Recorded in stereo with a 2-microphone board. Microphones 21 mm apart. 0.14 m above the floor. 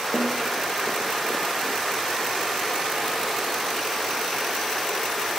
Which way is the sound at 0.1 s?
80° left.